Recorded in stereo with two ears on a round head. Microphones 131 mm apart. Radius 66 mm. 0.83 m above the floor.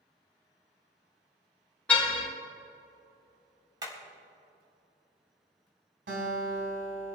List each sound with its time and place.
1.9 s a car horn: 10° left (ahead or behind), 3.5 m
3.8 s hammering: 30° right (ahead or behind), 4 m
6.1 s a guitar: 80° right, 5.5 m